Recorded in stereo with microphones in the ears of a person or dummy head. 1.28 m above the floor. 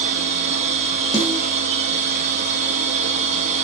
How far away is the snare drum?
About 4.5 m.